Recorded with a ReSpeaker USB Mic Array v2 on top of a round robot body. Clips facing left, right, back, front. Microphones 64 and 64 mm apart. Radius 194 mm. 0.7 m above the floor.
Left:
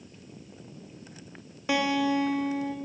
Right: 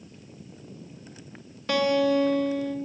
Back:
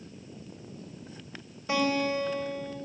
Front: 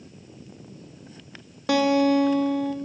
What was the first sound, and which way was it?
A guitar, 10° left.